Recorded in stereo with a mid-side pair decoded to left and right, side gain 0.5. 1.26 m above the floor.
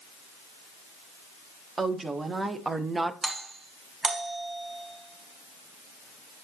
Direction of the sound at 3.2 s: 35° right.